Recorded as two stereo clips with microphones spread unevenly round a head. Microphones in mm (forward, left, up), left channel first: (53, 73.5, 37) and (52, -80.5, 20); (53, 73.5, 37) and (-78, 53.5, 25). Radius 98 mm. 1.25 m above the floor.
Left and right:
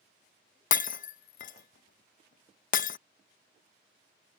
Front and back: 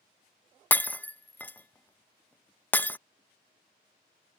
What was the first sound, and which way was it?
Breaking glass, 80° left.